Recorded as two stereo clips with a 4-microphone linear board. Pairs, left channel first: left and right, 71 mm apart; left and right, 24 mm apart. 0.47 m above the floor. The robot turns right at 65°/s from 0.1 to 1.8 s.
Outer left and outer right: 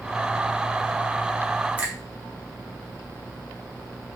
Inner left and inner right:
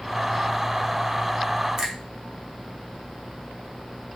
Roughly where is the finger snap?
Right.